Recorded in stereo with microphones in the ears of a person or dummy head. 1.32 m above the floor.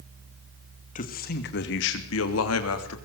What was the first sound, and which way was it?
A man speaking, 45° left (ahead or behind).